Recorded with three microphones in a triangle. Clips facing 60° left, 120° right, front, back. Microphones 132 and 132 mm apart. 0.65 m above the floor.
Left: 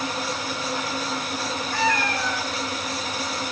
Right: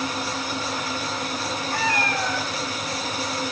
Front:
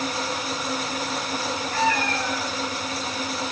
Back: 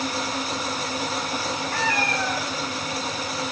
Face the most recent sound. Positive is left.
turn(degrees=-165)